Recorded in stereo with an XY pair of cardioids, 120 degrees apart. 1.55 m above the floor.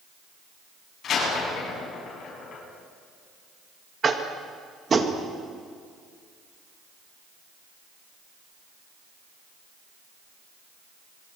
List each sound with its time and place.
1.0 s a door slam: 50° left, 9.5 m
4.0 s tapping: 30° right, 2 m